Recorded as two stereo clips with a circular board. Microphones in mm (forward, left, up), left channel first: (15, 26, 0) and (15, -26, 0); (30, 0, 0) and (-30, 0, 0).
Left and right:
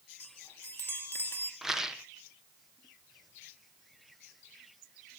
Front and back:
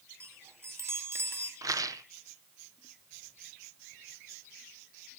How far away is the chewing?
I don't hear chewing.